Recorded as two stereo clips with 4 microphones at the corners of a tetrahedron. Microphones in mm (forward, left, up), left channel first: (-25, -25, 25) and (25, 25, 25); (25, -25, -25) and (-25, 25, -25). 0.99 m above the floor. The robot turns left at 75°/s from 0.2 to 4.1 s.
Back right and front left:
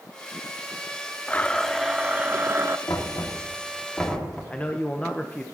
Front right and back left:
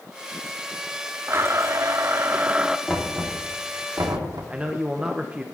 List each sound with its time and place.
1.3 s a blender: 170° left, 0.6 m; by 2.8 s 60° left, 0.6 m
2.9 s knocking: 120° right, 2 m; by 4.4 s 145° left, 2 m
4.5 s a man speaking: straight behind, 0.8 m